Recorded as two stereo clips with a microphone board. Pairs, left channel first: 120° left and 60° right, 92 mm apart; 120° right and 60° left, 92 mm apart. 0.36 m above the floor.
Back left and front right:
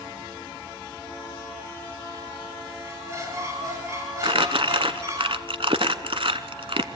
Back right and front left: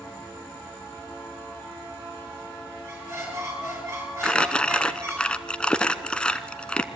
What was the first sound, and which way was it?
A squeak, straight ahead.